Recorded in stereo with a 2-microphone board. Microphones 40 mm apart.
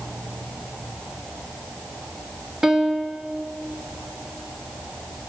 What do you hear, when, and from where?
2.6 s a piano: 15° right (ahead or behind), 1.9 m